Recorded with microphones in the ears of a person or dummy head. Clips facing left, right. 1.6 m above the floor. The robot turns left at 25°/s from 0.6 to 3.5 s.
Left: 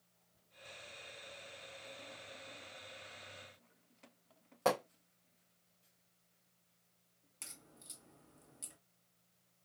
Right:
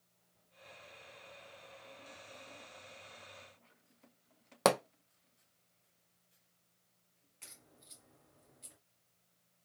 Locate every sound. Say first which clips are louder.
4.7 s a pop: right 4 dB; 75° right (ahead or behind), 0.8 m
7.4 s a crack: left 2 dB; 55° left (ahead or behind), 1.4 m